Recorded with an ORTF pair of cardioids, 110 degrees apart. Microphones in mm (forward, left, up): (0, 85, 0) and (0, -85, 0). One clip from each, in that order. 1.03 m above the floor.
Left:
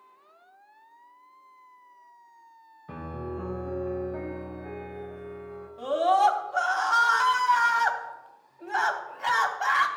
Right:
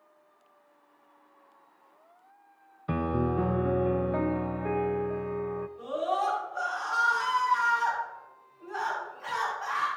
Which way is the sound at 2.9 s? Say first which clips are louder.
Right 8 dB; 55° right.